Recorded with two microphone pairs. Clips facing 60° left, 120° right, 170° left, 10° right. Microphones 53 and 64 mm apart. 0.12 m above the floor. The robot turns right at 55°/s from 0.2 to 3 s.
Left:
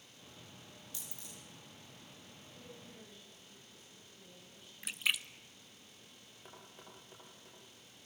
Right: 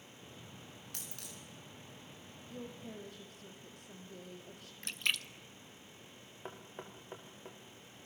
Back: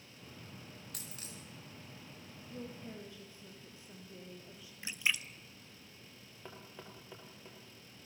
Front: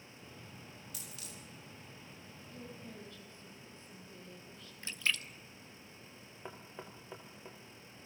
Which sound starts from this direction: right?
Knocking, at 6.5 s.